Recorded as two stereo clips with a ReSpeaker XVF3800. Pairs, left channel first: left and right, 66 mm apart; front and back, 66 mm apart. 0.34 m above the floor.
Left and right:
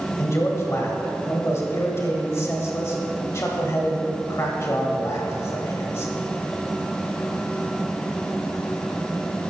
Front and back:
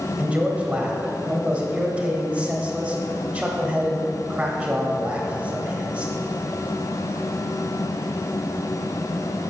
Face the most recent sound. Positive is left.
turn(degrees=115)